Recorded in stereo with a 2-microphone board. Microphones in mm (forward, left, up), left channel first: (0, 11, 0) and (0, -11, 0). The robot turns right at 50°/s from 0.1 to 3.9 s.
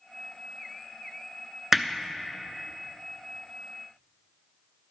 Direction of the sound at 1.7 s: 20° right (ahead or behind).